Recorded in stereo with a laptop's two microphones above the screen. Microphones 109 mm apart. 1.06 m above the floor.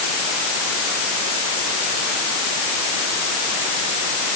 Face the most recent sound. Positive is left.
No sound to turn to.